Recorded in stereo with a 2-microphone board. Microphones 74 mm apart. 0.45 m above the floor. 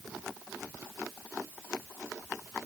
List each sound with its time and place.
Only background noise.